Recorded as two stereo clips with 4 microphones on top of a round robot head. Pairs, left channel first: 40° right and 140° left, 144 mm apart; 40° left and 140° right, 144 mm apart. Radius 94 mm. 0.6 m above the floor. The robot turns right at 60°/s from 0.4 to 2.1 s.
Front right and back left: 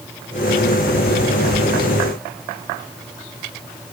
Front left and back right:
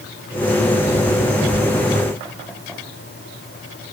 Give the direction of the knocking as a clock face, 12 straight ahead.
I don't hear knocking.